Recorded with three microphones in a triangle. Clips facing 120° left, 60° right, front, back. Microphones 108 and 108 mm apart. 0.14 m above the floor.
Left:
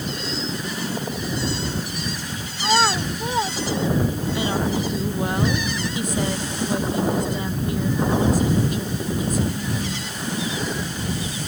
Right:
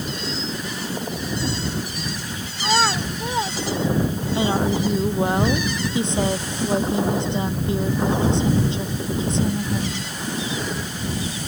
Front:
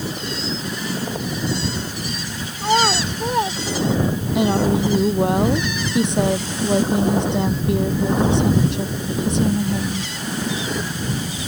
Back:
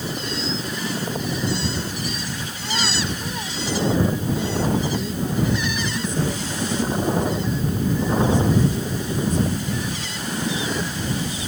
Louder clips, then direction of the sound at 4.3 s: Right 4 dB, front 5 dB; 5° left.